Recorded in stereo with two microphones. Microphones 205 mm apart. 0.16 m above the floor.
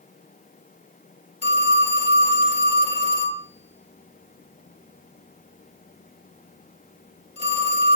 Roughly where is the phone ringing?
Right.